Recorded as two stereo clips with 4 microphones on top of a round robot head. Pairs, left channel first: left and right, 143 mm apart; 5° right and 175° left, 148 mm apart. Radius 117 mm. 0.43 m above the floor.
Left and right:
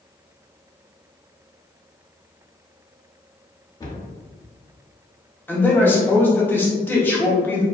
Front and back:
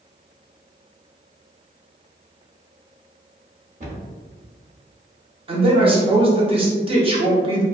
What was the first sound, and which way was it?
A cupboard door, 150° left.